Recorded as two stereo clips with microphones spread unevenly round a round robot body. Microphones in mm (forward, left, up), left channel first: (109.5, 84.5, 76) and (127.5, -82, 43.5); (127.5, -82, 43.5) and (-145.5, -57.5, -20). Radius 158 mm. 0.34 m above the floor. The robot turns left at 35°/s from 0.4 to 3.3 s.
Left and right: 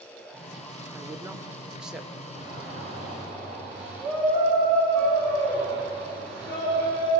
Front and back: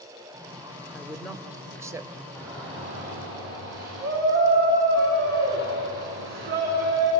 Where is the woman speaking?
110° right, 1.2 m; by 2.2 s 155° right, 1.2 m.